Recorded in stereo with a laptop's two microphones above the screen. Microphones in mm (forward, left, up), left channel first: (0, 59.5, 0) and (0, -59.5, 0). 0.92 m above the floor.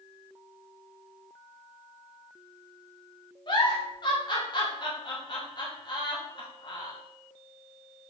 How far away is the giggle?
About 1.0 m.